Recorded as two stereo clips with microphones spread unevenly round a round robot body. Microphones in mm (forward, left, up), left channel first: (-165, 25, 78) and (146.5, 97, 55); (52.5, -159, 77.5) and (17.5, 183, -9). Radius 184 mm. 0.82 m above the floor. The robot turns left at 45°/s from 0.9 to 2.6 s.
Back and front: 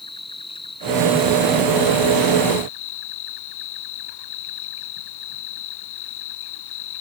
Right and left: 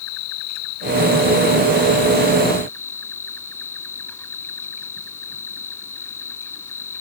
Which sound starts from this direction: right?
An insect, at 0.0 s.